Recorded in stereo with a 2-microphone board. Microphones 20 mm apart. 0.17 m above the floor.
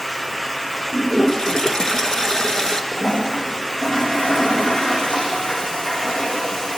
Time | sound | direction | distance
0.9 | a toilet flushing | 30° left (ahead or behind) | 2.5 m
2.9 | a toilet flushing | 80° left | 6.5 m